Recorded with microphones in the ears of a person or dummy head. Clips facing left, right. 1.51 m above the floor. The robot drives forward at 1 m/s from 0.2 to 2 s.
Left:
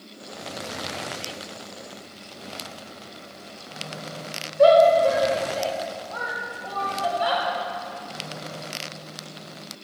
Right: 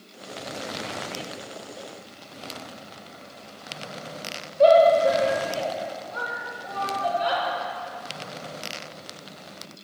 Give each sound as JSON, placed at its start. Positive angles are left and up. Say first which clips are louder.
{"t": 4.6, "sound": "a shout", "louder": "left 1 dB", "side_deg": 75, "distance_m": 6.5}